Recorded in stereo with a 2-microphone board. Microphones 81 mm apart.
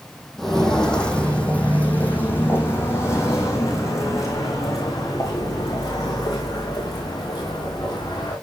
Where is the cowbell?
No cowbell in this recording.